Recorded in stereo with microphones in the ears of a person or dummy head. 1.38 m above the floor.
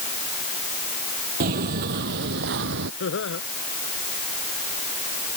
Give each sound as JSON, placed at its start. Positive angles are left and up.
{"t": 1.4, "sound": "footsteps", "side_deg": -50}
{"t": 3.0, "sound": "laughter", "side_deg": 65}